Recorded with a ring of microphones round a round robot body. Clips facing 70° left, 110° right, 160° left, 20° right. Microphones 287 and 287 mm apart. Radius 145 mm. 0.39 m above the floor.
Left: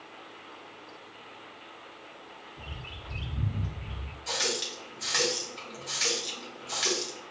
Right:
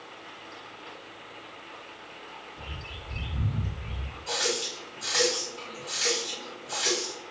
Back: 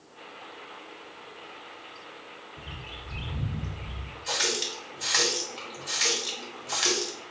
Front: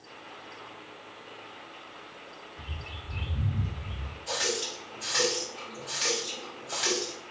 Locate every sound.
2.6 s a bird: 140° left, 1.2 m
4.3 s a running tap: 115° left, 1.1 m